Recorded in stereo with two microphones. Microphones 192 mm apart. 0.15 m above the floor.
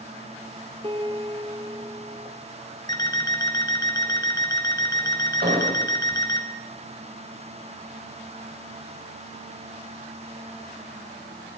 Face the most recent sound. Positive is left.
turn(degrees=-45)  # may be behind; listen again after turning